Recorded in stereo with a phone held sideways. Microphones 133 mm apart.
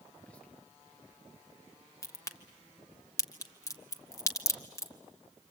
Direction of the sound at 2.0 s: 20° left (ahead or behind).